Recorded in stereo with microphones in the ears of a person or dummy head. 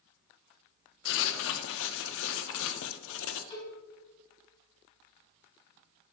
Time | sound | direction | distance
1.1 | writing | 70° left (ahead or behind) | 0.6 m
3.5 | a cowbell | 30° left (ahead or behind) | 3.5 m